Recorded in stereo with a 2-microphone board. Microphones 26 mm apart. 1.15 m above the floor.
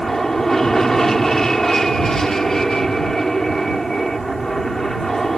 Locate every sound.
0.0 s an aircraft: 10° left (ahead or behind)